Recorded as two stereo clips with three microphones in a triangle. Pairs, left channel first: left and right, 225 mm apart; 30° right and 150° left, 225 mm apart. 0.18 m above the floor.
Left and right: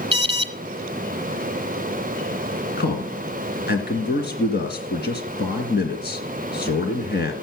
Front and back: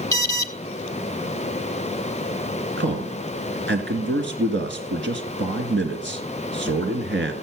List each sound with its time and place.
0.1 s an alarm: 85° right, 1.3 m
2.8 s a man speaking: 125° left, 2.5 m